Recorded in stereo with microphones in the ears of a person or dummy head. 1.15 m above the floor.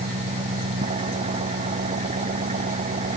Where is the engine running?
35° right (ahead or behind).